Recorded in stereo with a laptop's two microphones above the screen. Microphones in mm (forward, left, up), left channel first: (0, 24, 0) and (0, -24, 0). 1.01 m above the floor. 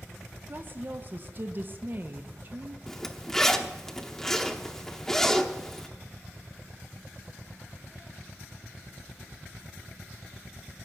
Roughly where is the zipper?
Centre.